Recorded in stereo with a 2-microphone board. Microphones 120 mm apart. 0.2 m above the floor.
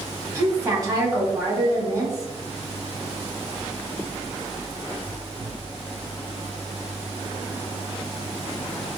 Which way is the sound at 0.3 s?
25° right (ahead or behind).